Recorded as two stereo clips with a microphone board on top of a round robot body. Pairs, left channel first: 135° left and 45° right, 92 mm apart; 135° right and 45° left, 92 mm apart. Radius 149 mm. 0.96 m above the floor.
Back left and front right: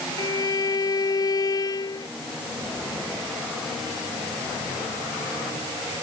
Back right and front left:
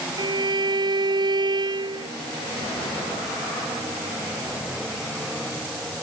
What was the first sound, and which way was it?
A violin, 85° left.